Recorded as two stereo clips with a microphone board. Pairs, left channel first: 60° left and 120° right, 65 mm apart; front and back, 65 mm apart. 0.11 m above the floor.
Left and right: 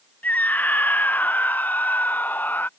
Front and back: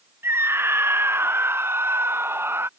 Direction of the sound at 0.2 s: 125° left.